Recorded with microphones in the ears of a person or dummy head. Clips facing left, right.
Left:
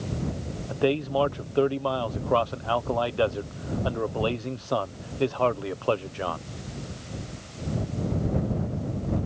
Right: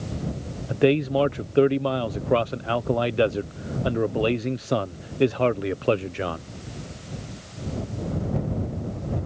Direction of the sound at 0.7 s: 25° right (ahead or behind).